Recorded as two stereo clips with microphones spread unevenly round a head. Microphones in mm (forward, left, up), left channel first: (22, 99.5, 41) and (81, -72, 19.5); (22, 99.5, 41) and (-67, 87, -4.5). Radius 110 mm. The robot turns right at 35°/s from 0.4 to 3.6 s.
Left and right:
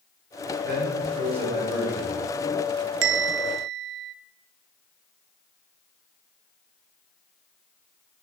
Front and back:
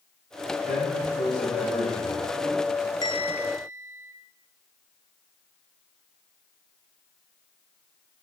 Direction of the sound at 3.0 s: 65° right.